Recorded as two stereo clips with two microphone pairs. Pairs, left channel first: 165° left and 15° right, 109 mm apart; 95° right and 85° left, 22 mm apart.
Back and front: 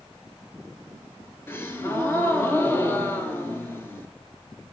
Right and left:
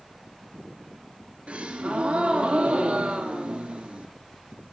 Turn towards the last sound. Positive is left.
turn(degrees=95)